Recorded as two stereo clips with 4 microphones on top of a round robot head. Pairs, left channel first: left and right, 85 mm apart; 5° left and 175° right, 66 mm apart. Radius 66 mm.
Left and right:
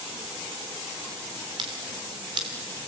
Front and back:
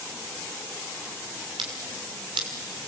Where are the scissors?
140° right, 2.5 m.